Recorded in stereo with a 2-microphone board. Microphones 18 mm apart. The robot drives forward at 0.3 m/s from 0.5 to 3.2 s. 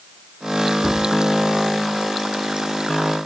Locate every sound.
0.8 s a cupboard door: 75° left (ahead or behind), 5.5 m